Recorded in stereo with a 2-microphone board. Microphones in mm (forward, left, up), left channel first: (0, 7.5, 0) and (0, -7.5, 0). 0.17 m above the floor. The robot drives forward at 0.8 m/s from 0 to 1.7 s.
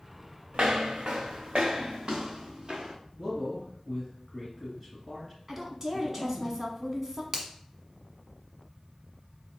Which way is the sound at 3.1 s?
10° left (ahead or behind).